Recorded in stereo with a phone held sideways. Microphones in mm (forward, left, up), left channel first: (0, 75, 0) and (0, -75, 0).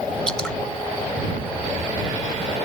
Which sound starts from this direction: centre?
Dripping, at 0.3 s.